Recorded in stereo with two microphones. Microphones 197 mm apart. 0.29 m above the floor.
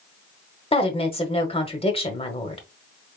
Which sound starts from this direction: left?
A woman speaking, at 0.7 s.